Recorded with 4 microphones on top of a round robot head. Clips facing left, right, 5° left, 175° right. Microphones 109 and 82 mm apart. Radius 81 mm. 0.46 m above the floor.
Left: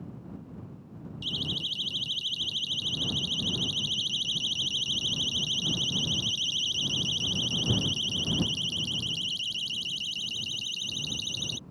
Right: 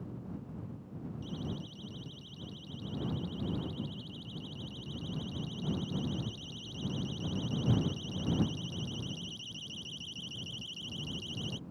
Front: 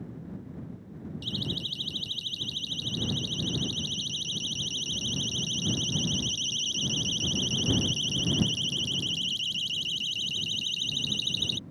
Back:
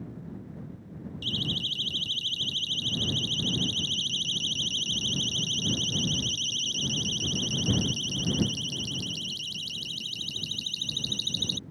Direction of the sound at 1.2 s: 85° left.